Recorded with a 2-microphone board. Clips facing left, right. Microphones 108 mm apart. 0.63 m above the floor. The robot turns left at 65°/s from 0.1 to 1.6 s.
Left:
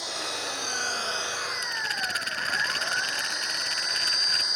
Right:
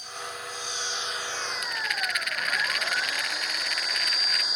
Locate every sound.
0.0 s an engine running: 95° left; by 4.5 s 5° right
1.6 s a rattle: 30° left (ahead or behind)